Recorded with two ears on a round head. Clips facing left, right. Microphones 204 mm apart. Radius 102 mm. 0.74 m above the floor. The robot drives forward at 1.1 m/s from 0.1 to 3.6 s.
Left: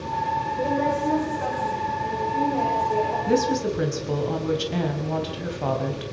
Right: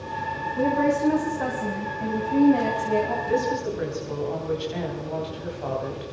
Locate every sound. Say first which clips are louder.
0.6 s a woman speaking: right 3 dB; 55° right (ahead or behind), 5 m; by 3.2 s 85° right, 4 m
3.3 s a woman speaking: left 3 dB; 55° left (ahead or behind), 4 m; by 6.0 s 60° left (ahead or behind), 3.5 m